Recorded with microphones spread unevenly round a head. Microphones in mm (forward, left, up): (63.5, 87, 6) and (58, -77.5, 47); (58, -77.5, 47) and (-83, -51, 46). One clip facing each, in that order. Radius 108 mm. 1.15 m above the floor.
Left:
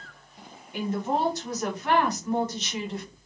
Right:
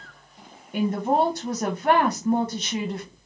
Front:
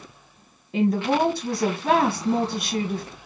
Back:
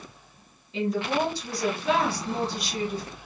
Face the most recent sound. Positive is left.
turn(degrees=-30)